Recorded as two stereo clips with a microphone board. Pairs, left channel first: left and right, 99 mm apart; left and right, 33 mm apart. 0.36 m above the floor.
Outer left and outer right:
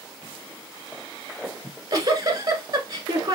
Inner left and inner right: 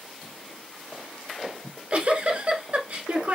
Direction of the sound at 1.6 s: 40° right (ahead or behind).